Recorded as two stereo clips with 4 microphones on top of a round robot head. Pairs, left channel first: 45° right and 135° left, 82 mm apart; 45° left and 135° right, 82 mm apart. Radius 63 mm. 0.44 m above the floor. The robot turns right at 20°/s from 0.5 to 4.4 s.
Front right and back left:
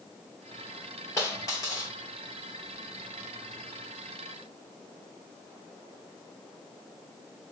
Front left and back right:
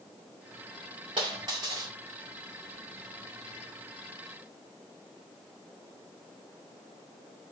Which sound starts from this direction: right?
A dropped coin, at 1.2 s.